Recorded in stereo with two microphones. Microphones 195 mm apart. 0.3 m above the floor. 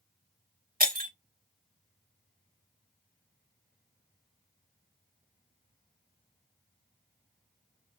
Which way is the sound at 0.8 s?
50° right (ahead or behind).